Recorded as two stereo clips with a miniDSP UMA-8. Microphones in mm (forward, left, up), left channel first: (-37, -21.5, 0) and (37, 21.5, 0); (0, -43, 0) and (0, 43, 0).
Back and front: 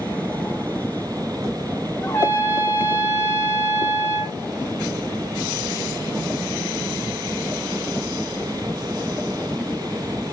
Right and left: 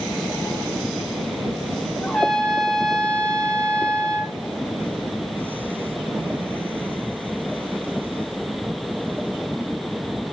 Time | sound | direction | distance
2.0 | a trumpet | 165° right | 1.7 m